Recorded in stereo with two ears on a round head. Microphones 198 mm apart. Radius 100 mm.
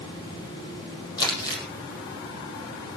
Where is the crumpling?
20° left (ahead or behind), 6 m.